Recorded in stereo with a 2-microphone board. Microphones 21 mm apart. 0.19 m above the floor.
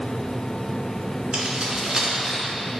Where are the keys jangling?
50° right (ahead or behind), 1.9 m; by 2.5 s 20° right (ahead or behind), 1.8 m.